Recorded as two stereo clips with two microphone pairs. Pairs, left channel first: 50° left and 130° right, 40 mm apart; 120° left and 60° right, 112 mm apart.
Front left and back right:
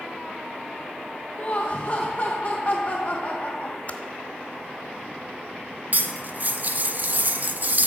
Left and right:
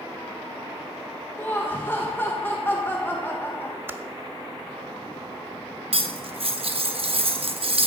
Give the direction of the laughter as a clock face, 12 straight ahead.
10 o'clock.